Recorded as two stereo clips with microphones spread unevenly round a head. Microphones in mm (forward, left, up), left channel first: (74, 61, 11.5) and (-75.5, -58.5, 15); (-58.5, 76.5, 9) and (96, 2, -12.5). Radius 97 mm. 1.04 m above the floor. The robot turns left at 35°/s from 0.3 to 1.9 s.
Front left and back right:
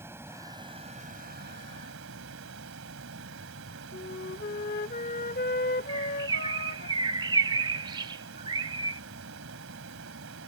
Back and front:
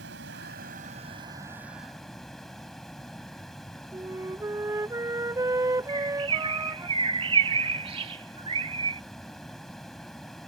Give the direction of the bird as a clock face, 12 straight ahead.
3 o'clock.